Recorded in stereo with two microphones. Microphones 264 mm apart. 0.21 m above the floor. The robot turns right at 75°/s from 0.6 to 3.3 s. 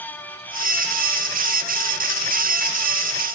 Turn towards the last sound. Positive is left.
No sound to turn to.